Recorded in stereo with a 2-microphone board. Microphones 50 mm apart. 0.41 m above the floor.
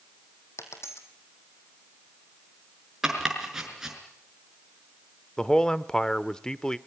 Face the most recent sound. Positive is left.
turn(degrees=15)  # may be behind; listen again after turning